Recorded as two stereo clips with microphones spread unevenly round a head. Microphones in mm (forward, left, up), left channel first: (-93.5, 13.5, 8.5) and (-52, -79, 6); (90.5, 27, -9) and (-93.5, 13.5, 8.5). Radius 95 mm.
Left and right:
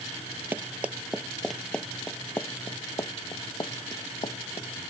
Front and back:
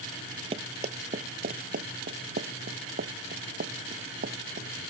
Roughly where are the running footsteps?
Behind right.